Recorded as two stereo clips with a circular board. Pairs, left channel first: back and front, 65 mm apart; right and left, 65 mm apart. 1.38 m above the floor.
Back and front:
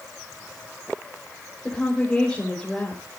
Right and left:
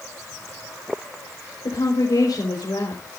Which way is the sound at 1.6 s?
105° right.